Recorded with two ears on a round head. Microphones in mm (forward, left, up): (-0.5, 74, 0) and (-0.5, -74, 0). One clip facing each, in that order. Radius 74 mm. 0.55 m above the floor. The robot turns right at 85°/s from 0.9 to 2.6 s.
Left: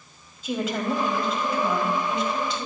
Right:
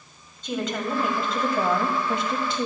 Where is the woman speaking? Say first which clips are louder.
Left 2 dB; 175° left, 3 m; by 2.7 s 40° right, 3 m.